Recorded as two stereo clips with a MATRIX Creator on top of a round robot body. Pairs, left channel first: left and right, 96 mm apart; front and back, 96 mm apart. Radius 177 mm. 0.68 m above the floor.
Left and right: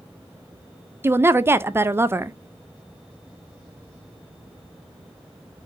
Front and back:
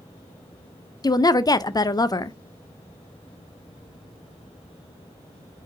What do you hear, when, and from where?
1.0 s a woman speaking: 30° right, 0.6 m